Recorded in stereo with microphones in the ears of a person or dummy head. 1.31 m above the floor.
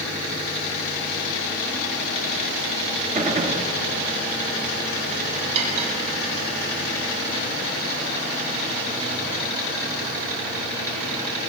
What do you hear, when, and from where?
3.1 s a gunshot: 35° right (ahead or behind), 3.5 m
5.5 s cutlery clinking: 40° right (ahead or behind), 6 m